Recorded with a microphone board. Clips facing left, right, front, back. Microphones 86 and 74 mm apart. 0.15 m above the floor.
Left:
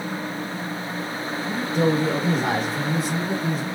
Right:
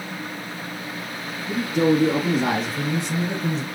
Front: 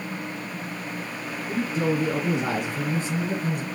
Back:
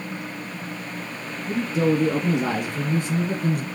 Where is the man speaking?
165° right, 3.5 m; by 3.6 s 175° left, 2 m.